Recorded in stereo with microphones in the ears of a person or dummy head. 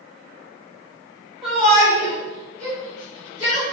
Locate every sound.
1.4 s a shout: 5° left (ahead or behind), 3 m; by 3.6 s 20° left (ahead or behind), 6 m